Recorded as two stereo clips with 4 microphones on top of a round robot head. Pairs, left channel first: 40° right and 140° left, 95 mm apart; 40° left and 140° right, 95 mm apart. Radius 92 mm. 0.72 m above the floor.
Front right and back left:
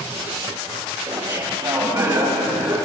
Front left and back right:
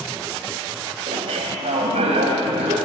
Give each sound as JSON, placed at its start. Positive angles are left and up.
{"t": 1.1, "sound": "laughter", "azimuth_deg": -160, "distance_m": 4.0}